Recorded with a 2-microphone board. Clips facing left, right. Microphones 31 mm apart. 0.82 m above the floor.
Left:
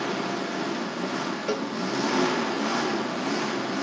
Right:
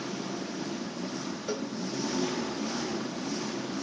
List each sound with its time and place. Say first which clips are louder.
0.0 s an engine running: left 7 dB; 65° left (ahead or behind), 0.8 m
1.5 s a cowbell: left 4 dB; 40° left (ahead or behind), 0.7 m